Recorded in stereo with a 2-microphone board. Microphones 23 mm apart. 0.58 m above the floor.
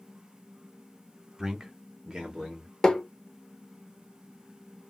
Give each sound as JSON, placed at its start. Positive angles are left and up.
{"t": 1.4, "sound": "a man speaking", "side_deg": -20, "distance_m": 1.1}
{"t": 2.8, "sound": "tapping", "side_deg": 25, "distance_m": 0.6}